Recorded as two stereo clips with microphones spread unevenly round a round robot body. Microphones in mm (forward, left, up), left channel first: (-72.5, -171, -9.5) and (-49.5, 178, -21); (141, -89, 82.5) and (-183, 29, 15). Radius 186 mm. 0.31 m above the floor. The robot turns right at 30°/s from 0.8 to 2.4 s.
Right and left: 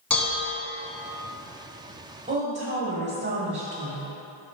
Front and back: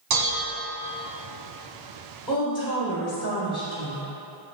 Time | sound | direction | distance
0.1 | dishes clattering | straight behind | 1.5 m
2.3 | a woman speaking | 60° left | 1.0 m